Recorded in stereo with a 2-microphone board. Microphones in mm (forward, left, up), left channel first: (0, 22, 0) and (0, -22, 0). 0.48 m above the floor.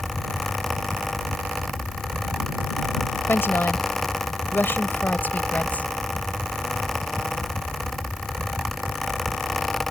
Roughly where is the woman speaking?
Left.